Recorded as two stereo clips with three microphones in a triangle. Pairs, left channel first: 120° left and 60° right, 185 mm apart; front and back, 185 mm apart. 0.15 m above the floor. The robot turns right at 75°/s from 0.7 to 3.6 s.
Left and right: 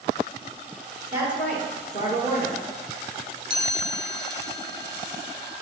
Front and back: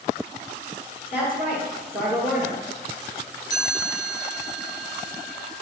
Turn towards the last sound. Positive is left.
turn(degrees=-110)